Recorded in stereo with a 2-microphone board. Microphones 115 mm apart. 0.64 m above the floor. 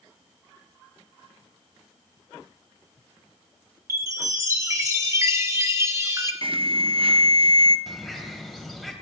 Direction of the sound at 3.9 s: 25° right (ahead or behind).